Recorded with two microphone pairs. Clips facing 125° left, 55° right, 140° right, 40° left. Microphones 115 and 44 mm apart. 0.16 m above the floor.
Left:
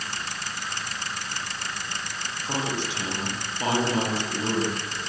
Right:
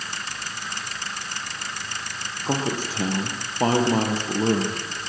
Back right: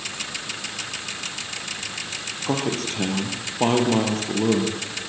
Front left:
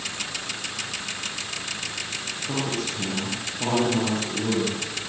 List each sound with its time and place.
2.5 s a man speaking: 105° right, 4 m